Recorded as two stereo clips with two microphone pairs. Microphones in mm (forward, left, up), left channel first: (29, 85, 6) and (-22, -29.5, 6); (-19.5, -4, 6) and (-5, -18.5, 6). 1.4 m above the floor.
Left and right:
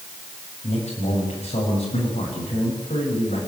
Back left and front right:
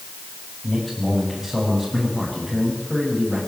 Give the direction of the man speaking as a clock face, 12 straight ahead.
10 o'clock.